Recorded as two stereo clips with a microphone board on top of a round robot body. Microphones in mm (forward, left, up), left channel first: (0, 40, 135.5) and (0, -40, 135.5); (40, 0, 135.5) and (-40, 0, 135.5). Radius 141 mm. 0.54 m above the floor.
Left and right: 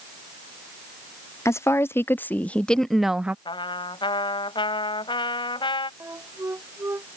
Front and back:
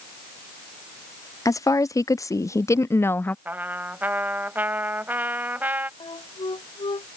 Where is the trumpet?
110° left.